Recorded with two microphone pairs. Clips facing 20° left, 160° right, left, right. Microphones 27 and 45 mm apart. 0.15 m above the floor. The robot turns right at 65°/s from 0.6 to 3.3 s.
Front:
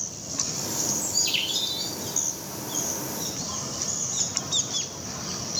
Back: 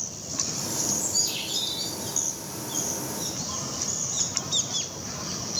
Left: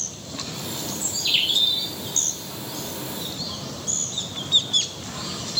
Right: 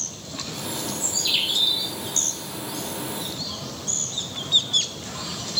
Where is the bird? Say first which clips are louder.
Front 5 dB, left 3 dB; 10° right, 1.4 m; by 1.9 s 60° left, 1.4 m.